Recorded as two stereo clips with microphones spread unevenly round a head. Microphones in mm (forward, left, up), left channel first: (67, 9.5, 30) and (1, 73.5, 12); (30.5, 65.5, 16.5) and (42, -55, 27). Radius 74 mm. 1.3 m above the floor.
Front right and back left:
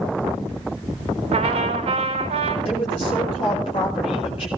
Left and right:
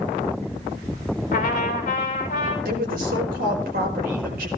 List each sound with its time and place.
1.3 s a trumpet: 140° left, 3.5 m
2.6 s a woman speaking: 100° right, 4.5 m